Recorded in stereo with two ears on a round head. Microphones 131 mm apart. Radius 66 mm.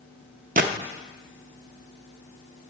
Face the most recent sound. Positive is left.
turn(degrees=-55)  # may be behind; listen again after turning